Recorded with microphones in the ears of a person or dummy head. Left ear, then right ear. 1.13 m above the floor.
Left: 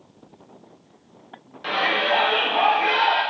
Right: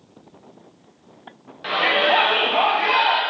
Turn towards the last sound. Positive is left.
turn(degrees=-70)  # may be behind; listen again after turning